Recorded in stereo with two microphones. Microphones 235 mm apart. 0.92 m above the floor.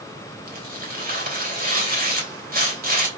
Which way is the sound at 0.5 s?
40° right (ahead or behind).